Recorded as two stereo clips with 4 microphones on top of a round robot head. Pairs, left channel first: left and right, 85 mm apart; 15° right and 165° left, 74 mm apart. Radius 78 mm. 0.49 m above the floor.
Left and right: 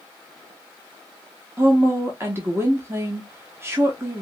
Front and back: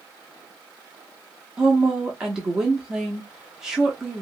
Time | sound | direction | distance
1.6 | a woman speaking | 115° right | 0.8 m